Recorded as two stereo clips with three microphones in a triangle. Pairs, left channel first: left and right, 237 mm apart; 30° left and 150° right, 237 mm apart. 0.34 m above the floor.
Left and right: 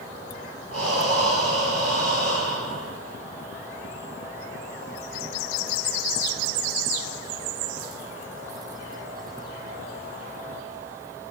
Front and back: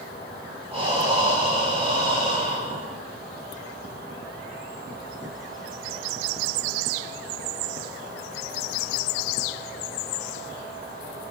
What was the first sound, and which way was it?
Breathing, 80° right.